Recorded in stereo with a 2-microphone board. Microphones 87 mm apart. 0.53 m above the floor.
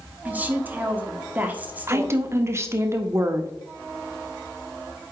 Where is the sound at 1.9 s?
30° right (ahead or behind), 0.8 m.